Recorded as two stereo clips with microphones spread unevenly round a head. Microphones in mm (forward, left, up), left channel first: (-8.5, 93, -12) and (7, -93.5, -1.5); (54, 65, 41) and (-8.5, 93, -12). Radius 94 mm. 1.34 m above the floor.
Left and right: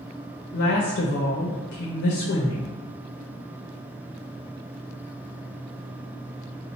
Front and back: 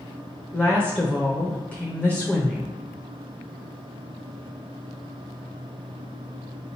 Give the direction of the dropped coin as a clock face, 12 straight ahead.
No dropped coin in this recording.